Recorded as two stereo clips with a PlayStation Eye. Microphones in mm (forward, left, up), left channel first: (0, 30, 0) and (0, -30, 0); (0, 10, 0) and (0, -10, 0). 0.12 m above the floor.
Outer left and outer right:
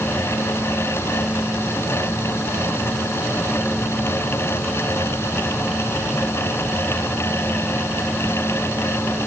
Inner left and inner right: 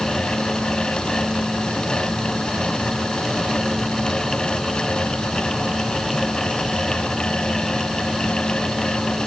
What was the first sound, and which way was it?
Only background noise.